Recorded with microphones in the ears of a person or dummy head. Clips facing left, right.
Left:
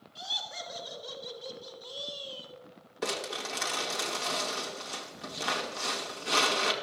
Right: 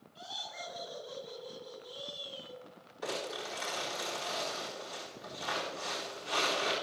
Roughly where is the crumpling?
Left.